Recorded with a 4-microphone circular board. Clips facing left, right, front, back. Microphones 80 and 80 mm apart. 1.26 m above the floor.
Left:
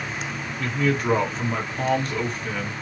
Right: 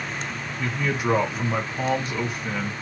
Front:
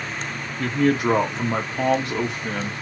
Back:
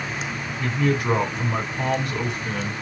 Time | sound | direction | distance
0.6 | a man speaking | 10° right | 1.9 m